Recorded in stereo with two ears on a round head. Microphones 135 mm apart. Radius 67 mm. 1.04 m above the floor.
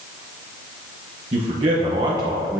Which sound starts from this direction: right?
A man speaking, at 1.3 s.